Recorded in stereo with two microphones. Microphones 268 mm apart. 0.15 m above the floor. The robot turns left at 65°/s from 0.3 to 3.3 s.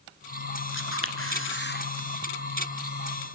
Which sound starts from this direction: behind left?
A camera shutter, at 0.7 s.